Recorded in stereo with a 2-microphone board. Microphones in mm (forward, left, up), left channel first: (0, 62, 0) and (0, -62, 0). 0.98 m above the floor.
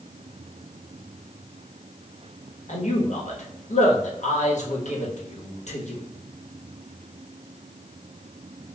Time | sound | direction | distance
2.7 | a man speaking | 70° left (ahead or behind) | 1.2 m